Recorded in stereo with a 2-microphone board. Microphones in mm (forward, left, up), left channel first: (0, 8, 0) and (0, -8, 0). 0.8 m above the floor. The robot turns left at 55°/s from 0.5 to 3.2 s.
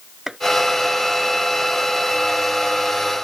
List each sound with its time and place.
0.3 s chopping: 30° right (ahead or behind)